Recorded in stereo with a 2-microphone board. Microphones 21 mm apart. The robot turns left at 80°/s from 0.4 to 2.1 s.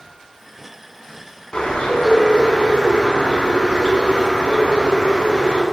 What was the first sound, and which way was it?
A bird, 125° left.